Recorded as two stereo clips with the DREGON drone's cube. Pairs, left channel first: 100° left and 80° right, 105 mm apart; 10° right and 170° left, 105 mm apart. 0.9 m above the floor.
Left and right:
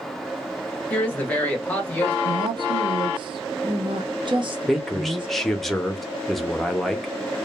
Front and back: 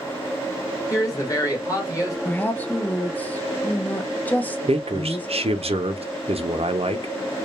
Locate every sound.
0.9 s a woman speaking: 30° left, 1.1 m
2.2 s a woman speaking: 80° right, 0.6 m
4.7 s a man speaking: 175° right, 0.5 m